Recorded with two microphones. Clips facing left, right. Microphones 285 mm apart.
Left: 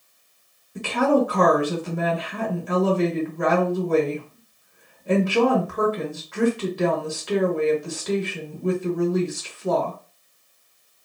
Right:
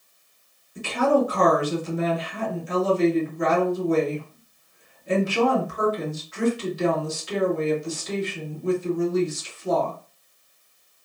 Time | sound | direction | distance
0.8 | a woman speaking | 65° left (ahead or behind) | 1.0 m